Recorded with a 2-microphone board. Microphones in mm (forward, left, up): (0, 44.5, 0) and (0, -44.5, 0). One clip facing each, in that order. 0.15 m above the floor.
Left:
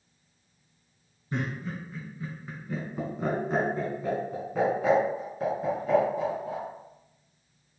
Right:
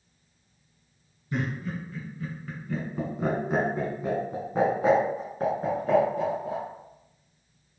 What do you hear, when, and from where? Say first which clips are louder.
1.3 s laughter: right 2 dB; 35° left (ahead or behind), 1.6 m; by 6.6 s 55° right (ahead or behind), 1.9 m